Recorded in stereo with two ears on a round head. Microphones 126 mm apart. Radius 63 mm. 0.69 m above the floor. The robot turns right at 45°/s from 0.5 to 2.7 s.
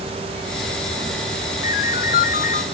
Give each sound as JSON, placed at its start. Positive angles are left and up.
{"t": 1.6, "sound": "a ringtone", "azimuth_deg": 65, "distance_m": 1.1}